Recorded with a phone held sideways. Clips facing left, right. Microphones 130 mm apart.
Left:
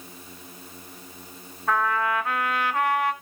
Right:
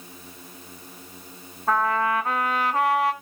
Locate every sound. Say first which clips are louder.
1.7 s a trumpet: right 2 dB; 35° right (ahead or behind), 2 m